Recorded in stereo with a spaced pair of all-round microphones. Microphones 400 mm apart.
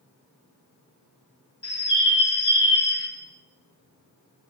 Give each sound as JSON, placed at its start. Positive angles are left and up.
{"t": 1.6, "sound": "a bird", "side_deg": 80, "distance_m": 1.4}